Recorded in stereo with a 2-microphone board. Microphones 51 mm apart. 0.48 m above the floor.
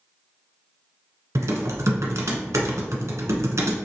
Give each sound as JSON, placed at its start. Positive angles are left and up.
{"t": 1.4, "sound": "typing on a keyboard", "side_deg": -70, "distance_m": 0.9}